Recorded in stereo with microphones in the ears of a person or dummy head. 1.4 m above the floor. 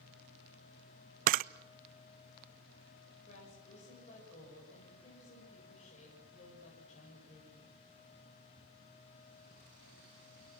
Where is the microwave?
I don't hear a microwave.